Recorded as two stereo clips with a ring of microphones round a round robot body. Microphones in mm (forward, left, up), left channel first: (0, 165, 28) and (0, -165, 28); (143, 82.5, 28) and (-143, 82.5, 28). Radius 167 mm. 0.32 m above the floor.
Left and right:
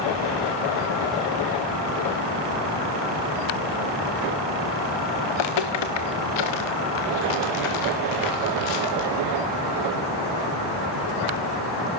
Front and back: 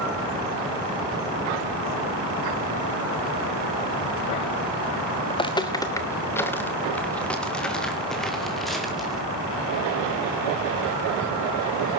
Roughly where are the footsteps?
Left.